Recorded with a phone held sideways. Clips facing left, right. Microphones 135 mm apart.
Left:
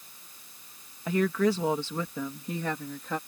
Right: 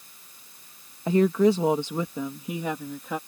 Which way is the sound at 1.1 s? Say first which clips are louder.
Right 6 dB; 25° right (ahead or behind).